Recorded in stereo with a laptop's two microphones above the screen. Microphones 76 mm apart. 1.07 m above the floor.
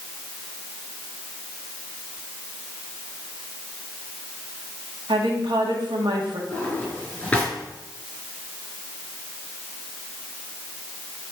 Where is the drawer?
15° left (ahead or behind), 3.5 m.